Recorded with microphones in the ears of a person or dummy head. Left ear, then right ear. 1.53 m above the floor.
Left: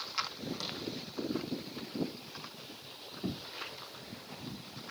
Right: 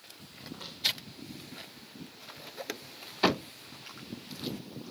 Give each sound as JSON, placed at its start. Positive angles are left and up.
{"t": 0.5, "sound": "footsteps", "side_deg": 55, "distance_m": 4.0}